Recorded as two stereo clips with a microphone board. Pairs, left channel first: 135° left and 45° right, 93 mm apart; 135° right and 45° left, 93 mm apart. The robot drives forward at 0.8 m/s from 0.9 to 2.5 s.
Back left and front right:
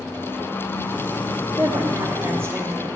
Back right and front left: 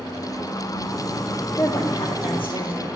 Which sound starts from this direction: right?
A woman speaking, at 1.6 s.